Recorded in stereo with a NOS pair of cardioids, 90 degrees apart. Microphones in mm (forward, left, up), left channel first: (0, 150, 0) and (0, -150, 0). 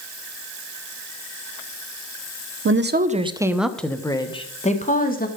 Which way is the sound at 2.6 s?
45° right.